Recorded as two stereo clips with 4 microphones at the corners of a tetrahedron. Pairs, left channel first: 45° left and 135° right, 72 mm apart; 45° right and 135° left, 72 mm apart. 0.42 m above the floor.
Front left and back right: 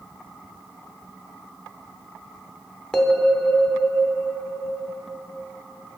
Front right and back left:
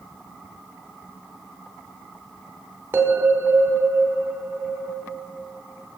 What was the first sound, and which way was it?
A bell, 120° left.